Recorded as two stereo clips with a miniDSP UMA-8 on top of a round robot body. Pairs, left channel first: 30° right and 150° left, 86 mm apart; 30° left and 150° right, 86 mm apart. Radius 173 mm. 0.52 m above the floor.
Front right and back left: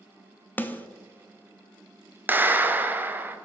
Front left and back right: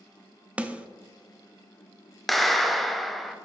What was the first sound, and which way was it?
A snare drum, 85° right.